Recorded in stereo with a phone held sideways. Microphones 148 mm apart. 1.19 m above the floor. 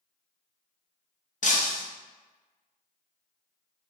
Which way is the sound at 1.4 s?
60° left (ahead or behind).